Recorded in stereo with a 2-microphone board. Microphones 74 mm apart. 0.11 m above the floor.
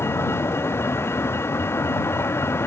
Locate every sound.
0.0 s a vehicle: 30° left (ahead or behind)